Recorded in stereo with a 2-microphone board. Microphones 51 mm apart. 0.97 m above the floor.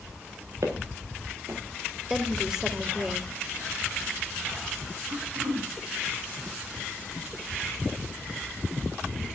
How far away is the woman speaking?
About 3.5 m.